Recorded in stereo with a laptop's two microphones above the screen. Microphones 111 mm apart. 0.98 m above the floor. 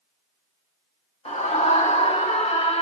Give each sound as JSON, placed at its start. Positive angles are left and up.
{"t": 1.2, "sound": "a scream", "side_deg": 75, "distance_m": 2.0}